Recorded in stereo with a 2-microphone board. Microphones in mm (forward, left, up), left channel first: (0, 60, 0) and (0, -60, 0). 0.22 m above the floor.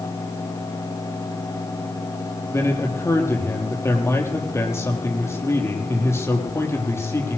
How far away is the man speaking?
About 6 m.